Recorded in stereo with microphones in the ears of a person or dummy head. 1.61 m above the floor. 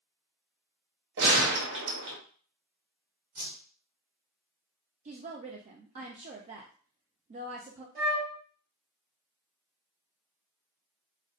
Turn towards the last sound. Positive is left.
turn(degrees=-50)  # may be behind; listen again after turning